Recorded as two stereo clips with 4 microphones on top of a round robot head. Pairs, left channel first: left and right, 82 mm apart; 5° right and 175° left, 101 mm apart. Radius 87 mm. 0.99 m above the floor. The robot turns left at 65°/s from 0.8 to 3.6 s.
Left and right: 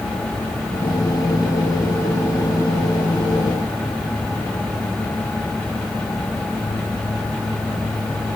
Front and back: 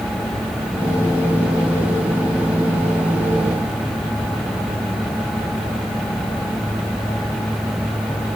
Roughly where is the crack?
No crack in this recording.